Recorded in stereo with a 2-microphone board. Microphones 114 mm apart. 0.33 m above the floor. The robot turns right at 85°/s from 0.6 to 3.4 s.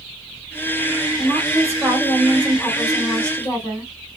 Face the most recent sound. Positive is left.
turn(degrees=100)